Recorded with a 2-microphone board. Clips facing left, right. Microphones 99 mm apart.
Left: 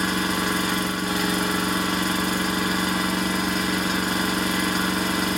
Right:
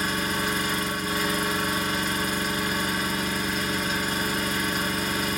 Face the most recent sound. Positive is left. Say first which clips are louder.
# left 3 dB
turn(degrees=80)